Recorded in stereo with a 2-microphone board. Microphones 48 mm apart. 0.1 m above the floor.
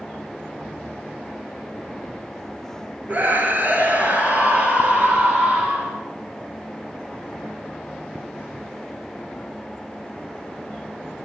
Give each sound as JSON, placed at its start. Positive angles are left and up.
{"t": 3.1, "sound": "a scream", "side_deg": -40, "distance_m": 2.0}